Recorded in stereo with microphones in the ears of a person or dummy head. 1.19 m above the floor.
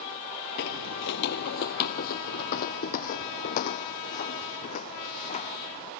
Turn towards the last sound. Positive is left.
turn(degrees=40)  # may be behind; listen again after turning